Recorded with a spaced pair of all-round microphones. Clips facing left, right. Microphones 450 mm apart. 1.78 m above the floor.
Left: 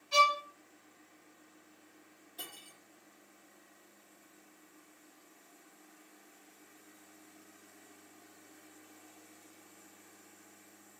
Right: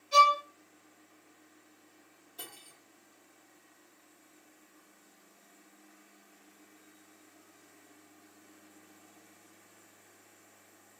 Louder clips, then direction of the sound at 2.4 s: Right 1 dB; 30° left (ahead or behind).